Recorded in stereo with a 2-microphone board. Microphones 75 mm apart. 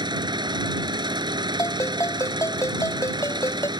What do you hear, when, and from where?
0.0 s an engine running: 85° right
1.6 s a ringtone: 45° left (ahead or behind)